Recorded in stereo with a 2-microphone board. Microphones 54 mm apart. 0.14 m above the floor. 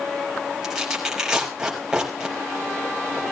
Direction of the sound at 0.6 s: 10° right (ahead or behind).